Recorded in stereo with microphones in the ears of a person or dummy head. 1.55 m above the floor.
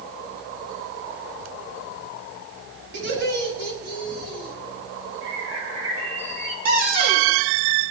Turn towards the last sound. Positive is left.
turn(degrees=-45)  # may be behind; listen again after turning